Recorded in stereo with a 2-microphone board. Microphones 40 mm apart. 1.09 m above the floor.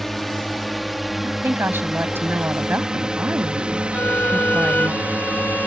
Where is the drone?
5° left (ahead or behind); by 5.7 s 50° right (ahead or behind).